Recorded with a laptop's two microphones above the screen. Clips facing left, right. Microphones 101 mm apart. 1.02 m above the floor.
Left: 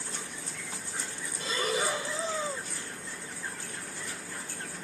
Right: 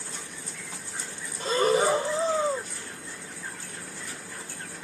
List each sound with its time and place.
1.4 s breathing: 40° right (ahead or behind)